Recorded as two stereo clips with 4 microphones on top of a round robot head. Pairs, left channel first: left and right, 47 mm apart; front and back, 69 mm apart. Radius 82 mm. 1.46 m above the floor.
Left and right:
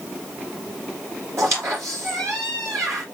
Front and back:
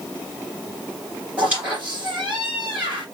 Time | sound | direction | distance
1.4 | a squeak | 110° right | 4 m